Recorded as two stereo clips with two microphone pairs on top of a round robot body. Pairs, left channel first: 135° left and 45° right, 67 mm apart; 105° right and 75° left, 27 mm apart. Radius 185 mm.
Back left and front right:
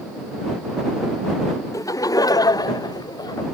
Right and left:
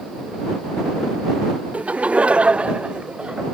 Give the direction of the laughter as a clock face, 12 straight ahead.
9 o'clock.